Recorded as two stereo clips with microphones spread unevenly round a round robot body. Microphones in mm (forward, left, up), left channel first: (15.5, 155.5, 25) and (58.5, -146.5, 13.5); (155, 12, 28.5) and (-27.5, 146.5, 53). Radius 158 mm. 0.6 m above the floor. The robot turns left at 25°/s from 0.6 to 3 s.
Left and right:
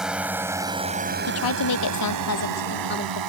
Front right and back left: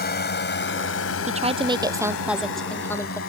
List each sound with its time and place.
0.0 s a drone: 5° left; by 3.3 s 90° right
1.3 s a woman speaking: 85° left; by 3.2 s 40° left